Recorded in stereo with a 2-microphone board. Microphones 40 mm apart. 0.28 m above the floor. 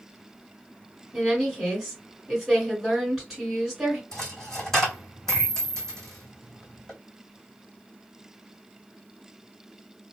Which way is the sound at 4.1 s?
15° left (ahead or behind).